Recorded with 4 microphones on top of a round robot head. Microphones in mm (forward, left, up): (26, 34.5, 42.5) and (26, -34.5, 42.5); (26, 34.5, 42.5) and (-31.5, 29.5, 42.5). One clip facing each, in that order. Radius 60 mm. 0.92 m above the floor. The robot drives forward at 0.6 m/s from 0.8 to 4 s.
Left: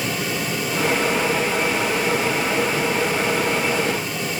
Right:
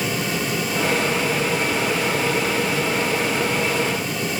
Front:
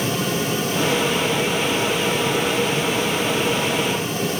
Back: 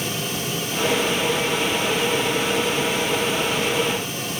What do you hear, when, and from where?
Only background noise.